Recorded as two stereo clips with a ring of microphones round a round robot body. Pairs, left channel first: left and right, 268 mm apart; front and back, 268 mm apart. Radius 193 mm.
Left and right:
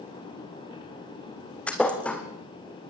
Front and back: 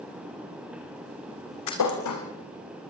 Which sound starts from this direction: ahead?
A thud, at 1.7 s.